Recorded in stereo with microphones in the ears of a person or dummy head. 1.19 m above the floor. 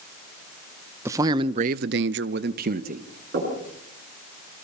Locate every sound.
1.1 s a man speaking: 15° right (ahead or behind), 1.0 m; by 3.1 s 45° right (ahead or behind), 1.6 m
3.3 s knocking: 55° right (ahead or behind), 10 m